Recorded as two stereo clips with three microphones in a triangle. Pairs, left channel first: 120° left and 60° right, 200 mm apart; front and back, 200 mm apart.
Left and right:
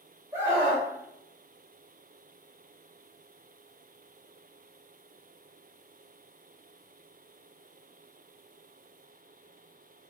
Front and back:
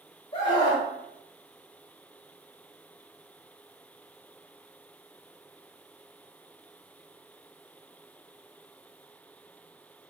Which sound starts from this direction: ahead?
A scream, at 0.3 s.